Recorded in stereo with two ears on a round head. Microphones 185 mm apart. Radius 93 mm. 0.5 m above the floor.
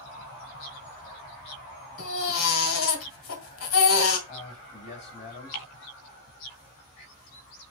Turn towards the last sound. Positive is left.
turn(degrees=35)  # may be behind; listen again after turning